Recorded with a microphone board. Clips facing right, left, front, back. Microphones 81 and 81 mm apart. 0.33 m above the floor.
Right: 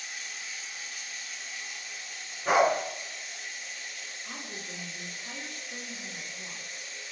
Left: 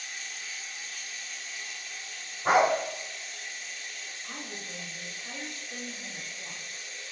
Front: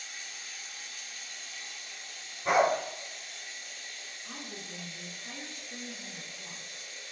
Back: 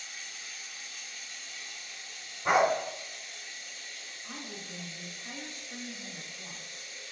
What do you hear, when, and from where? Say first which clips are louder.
0.0 s running water: even, even; 5° right, 0.9 m
2.5 s a dog barking: left 1 dB, even; 120° left, 0.9 m
4.2 s a woman speaking: left 1 dB, back 1 dB; 130° left, 1.0 m